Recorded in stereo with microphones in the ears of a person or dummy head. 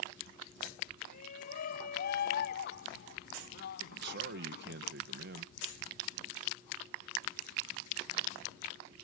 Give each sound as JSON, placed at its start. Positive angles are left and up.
{"t": 1.0, "sound": "a shout", "side_deg": 55}
{"t": 3.9, "sound": "a man speaking", "side_deg": -70}